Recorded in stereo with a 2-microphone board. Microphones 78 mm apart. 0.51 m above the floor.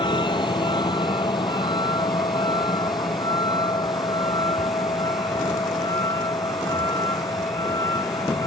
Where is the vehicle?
80° left; by 8.5 s 55° left (ahead or behind).